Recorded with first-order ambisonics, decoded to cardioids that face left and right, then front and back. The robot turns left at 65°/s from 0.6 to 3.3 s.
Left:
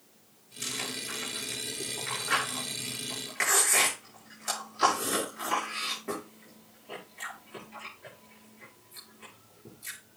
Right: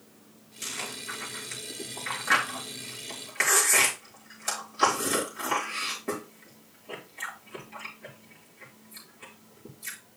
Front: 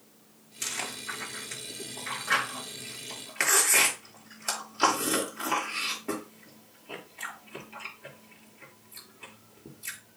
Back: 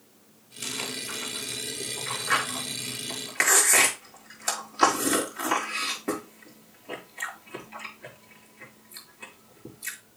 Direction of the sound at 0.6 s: 5° left.